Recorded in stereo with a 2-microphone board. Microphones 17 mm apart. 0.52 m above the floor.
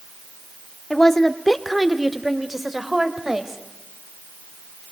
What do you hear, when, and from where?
0.9 s a woman speaking: 25° left (ahead or behind), 0.9 m; by 3.6 s 25° right (ahead or behind), 2 m